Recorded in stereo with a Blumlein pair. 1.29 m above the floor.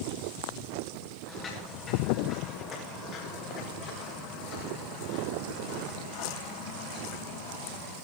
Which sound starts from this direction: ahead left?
Footsteps, at 1.3 s.